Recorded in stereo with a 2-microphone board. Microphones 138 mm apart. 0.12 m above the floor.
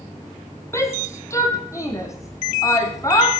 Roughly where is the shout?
Centre.